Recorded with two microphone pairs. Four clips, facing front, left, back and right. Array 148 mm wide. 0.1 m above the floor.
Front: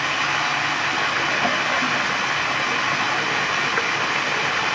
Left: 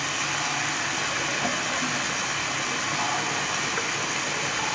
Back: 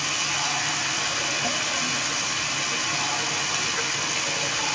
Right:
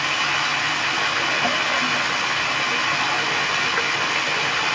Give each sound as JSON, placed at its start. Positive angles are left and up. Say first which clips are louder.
{"t": 0.0, "sound": "running water", "louder": "right 6 dB, front 7 dB", "azimuth_deg": -35, "distance_m": 1.9}